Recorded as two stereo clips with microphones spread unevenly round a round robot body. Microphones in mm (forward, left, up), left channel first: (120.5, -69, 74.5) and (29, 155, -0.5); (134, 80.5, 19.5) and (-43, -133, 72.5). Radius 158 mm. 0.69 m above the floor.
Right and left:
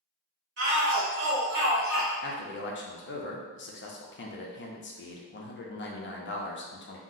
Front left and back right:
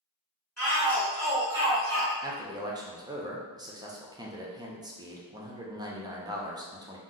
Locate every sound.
0.6 s a shout: 125° left, 1.3 m; by 2.1 s 175° left, 0.8 m
2.2 s a man speaking: 45° right, 0.6 m